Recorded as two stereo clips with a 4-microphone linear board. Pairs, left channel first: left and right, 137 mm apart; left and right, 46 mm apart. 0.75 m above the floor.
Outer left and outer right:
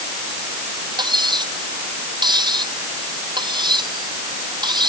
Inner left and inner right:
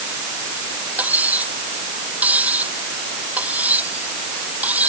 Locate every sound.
1.0 s cutlery clinking: 30° right (ahead or behind)